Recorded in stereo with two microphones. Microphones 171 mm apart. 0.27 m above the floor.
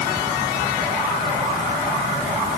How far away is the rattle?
No rattle in this recording.